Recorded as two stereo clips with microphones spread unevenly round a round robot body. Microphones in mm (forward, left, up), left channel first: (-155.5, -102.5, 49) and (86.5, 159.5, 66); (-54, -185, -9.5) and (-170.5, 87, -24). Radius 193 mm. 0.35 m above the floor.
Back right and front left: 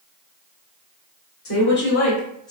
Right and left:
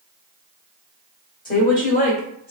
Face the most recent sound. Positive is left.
turn(degrees=-90)